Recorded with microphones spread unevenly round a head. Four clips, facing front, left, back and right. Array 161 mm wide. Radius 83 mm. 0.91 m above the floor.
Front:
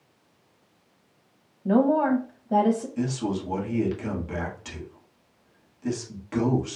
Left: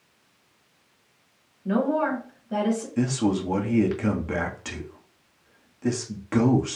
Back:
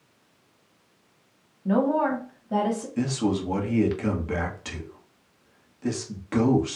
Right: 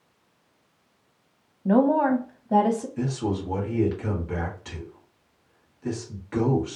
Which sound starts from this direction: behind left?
A man speaking, at 3.0 s.